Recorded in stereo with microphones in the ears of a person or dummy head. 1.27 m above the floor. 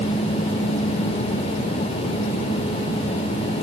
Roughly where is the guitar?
I don't hear a guitar.